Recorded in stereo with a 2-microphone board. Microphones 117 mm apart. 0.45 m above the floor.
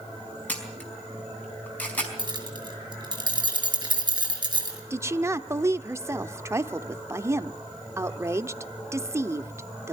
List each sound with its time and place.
0.5 s a camera shutter: 15° left (ahead or behind), 4.5 m
2.2 s keys jangling: 35° right (ahead or behind), 4.5 m
4.9 s a woman speaking: 25° right (ahead or behind), 0.8 m